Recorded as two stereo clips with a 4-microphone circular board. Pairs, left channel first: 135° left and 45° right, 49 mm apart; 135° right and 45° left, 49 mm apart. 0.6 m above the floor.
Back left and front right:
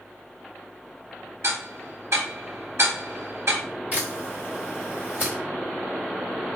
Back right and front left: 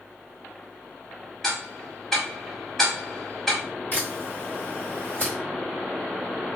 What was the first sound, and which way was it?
Ticking, 55° right.